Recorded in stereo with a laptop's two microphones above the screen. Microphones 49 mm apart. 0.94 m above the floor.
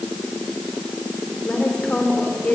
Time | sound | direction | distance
1.4 | a woman speaking | 20° left (ahead or behind) | 2.5 m